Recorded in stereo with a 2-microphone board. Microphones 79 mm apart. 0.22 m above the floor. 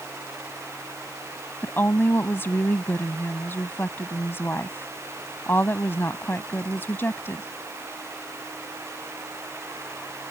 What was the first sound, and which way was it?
A woman speaking, 30° left (ahead or behind).